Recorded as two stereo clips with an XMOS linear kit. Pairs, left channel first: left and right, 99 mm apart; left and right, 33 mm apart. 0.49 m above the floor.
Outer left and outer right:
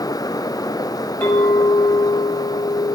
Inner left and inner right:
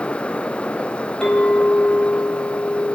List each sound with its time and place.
1.2 s a clink: 15° left (ahead or behind), 1.5 m